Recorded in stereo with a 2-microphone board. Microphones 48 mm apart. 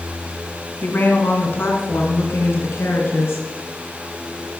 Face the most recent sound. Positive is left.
turn(degrees=65)  # may be behind; listen again after turning